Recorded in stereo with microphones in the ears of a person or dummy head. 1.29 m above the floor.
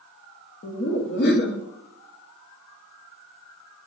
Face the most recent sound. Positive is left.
turn(degrees=50)  # may be behind; listen again after turning